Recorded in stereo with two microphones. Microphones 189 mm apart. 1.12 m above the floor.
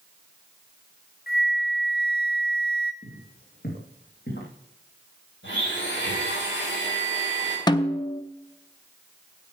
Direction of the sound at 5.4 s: 80° left.